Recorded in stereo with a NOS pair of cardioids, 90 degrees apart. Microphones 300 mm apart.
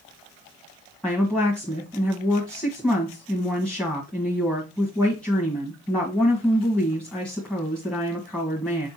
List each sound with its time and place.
1.0 s a woman speaking: 5° left, 1.6 m